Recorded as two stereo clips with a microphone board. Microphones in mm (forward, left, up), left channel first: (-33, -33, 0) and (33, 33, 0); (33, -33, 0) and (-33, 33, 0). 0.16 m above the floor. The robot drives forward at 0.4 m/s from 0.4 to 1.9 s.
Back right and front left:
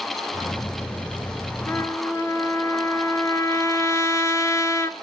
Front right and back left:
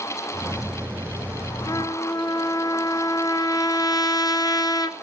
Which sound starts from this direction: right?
A trumpet, at 1.7 s.